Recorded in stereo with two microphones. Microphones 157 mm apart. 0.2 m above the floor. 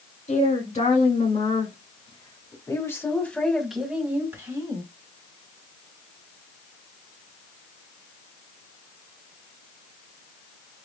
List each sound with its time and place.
0.3 s a woman speaking: 55° left (ahead or behind), 2.5 m; by 4.8 s 25° right (ahead or behind), 1.7 m